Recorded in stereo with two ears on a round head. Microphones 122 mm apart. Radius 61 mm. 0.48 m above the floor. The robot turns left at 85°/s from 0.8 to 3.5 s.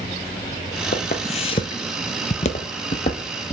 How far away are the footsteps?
About 0.9 m.